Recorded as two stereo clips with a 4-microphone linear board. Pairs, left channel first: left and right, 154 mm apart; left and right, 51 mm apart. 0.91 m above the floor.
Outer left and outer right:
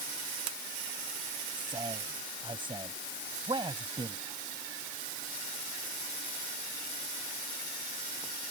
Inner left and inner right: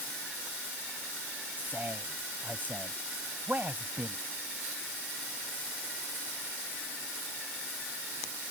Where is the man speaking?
35° right (ahead or behind).